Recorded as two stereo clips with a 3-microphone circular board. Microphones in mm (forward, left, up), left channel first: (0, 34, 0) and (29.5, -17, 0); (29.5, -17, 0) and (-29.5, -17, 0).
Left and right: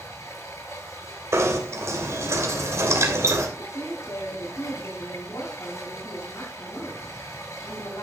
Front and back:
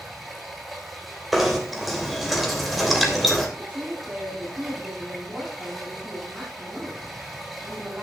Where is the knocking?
90° right, 3 m.